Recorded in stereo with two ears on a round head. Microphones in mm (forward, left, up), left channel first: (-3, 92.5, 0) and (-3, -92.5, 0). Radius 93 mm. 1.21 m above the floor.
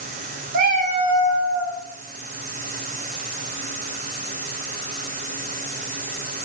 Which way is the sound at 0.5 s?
45° right (ahead or behind).